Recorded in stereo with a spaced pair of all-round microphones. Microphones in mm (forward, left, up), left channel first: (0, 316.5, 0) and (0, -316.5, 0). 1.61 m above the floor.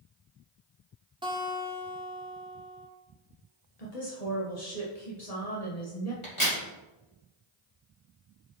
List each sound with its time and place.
1.2 s a guitar: 5° right (ahead or behind), 1.5 m
3.8 s a woman speaking: 70° left (ahead or behind), 1.4 m
6.2 s a crack: 50° left (ahead or behind), 3 m